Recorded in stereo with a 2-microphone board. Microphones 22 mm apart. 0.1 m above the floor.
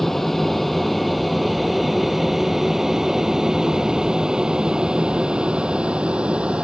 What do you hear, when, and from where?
0.0 s an aircraft: 10° left (ahead or behind); by 6.7 s 55° right (ahead or behind)